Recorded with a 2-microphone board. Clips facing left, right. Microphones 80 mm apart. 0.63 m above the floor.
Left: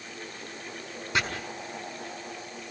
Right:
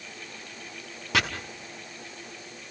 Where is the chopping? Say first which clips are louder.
Right 2 dB; 80° right, 4.5 m.